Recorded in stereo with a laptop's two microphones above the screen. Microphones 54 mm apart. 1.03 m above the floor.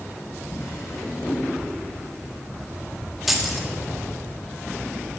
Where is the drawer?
60° left (ahead or behind), 3.5 m.